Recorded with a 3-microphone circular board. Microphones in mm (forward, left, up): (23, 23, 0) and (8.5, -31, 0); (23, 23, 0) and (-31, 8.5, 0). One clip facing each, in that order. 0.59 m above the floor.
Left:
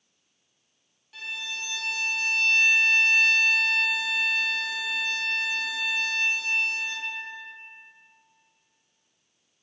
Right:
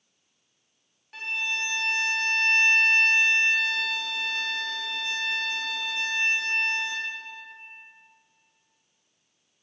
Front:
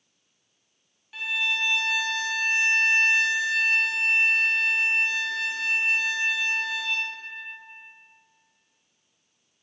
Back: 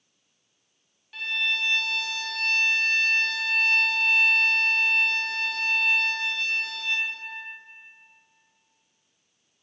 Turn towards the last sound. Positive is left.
turn(degrees=-65)